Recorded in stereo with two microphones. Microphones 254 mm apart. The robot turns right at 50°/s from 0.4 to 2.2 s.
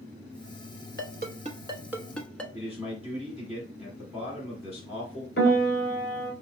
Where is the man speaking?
10° right (ahead or behind), 1.6 m.